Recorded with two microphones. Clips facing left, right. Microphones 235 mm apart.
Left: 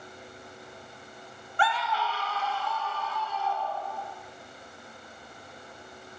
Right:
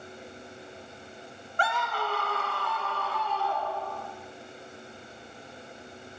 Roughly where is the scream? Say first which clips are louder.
Left 1 dB; right.